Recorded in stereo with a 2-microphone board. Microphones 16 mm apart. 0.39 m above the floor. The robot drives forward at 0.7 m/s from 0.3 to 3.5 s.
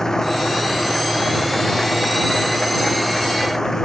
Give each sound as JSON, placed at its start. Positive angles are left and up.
{"t": 0.0, "sound": "an engine running", "side_deg": 40}